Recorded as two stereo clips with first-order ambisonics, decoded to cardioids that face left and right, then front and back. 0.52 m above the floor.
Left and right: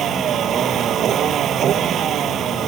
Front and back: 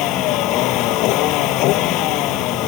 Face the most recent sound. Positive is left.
turn(degrees=-35)